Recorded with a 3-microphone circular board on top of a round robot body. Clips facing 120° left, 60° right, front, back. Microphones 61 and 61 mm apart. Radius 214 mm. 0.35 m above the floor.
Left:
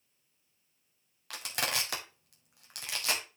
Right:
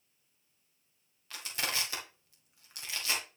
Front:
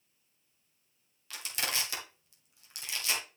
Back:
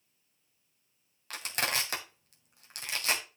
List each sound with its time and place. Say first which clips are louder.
1.3 s crushing: left 2 dB, back 4 dB; 140° left, 1.6 m